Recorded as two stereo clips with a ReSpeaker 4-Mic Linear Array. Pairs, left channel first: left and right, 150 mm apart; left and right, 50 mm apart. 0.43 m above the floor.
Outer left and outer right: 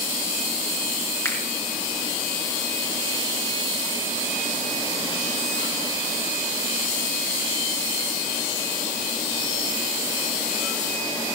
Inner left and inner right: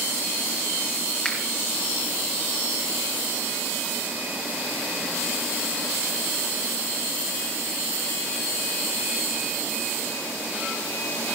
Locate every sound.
1.2 s a finger snap: 20° left (ahead or behind), 4 m